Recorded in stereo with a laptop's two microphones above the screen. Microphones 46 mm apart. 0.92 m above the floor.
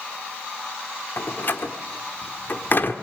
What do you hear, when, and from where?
1.2 s a door slam: 45° left (ahead or behind), 1.5 m